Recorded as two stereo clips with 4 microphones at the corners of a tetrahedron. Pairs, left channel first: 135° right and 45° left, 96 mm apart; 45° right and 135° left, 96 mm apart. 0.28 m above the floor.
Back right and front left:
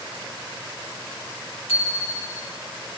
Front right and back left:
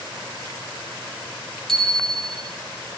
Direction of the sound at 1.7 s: 130° right.